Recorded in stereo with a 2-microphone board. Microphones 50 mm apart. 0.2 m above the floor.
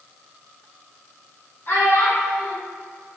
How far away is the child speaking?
About 1.1 m.